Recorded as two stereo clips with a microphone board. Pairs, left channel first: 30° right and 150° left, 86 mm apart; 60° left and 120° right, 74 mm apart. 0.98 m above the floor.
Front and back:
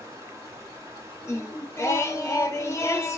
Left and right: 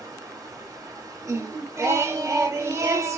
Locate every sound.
0.0 s running water: 155° right, 1.0 m
1.2 s singing: 85° right, 0.6 m